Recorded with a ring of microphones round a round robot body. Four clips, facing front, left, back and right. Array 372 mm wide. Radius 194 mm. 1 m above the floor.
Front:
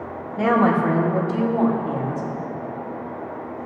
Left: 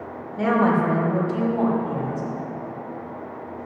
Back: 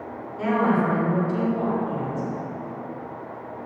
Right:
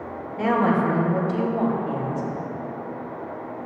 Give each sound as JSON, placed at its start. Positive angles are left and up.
{"t": 0.4, "sound": "a woman speaking", "azimuth_deg": 10, "distance_m": 2.5}